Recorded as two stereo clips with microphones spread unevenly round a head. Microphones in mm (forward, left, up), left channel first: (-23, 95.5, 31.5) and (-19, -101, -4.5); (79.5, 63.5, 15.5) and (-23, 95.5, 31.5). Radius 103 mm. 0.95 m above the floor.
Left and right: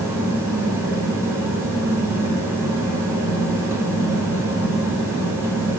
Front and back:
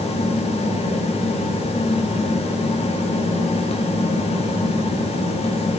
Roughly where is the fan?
Ahead.